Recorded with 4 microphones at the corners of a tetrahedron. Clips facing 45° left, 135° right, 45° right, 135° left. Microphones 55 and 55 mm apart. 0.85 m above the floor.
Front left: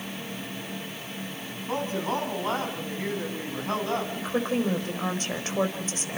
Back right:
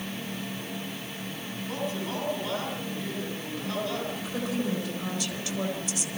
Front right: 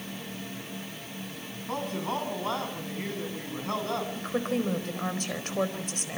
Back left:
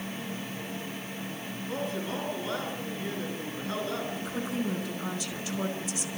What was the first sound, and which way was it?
A man speaking, 5° right.